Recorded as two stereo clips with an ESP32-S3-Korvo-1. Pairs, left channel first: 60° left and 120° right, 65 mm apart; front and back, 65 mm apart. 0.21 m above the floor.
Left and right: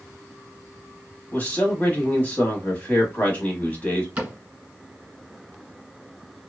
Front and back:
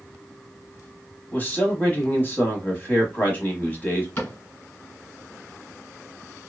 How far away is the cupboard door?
About 1.8 m.